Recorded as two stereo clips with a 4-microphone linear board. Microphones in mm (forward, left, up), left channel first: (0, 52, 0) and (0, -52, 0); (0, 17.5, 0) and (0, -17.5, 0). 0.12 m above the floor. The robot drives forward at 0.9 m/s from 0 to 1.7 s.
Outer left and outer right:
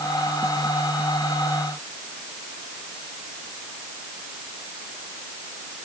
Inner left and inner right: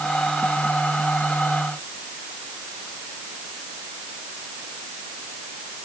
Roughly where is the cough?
I don't hear a cough.